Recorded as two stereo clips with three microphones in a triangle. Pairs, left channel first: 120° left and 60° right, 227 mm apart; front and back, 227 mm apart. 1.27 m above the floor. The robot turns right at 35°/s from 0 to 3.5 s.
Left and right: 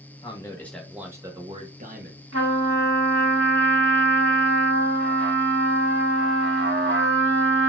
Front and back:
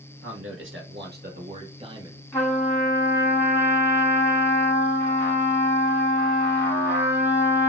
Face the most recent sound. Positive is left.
turn(degrees=-35)